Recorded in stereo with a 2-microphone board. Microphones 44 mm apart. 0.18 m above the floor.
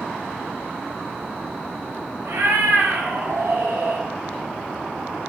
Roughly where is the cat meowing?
Right.